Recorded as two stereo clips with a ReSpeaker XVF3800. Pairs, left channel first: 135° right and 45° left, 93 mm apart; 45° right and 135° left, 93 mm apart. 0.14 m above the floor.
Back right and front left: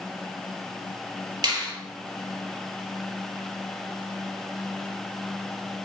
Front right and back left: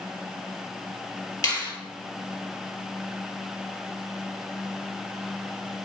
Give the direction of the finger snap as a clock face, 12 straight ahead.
12 o'clock.